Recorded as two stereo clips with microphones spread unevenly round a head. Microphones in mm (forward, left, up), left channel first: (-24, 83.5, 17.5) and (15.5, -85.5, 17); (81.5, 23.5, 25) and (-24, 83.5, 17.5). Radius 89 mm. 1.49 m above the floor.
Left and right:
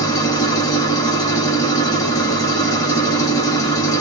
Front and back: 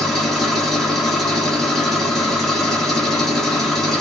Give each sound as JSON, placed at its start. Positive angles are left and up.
{"t": 0.0, "sound": "an engine running", "azimuth_deg": 50, "distance_m": 1.0}